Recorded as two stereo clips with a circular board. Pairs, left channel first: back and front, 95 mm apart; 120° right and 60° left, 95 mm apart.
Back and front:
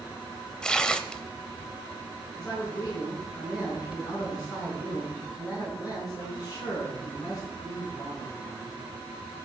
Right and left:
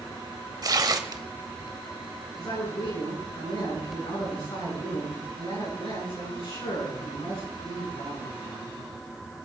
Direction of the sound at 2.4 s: 130° right.